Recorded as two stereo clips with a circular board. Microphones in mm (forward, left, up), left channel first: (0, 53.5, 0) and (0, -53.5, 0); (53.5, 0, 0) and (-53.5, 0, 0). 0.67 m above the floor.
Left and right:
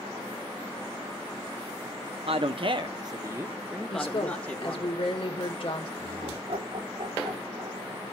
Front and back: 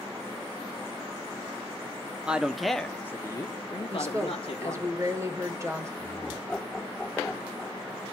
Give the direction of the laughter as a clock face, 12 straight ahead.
3 o'clock.